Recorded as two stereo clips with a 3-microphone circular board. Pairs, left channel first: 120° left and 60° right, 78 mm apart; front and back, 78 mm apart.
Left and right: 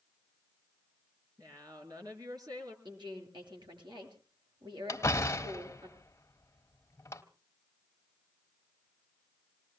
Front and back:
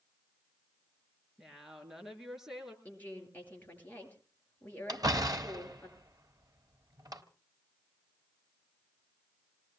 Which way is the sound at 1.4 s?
95° right.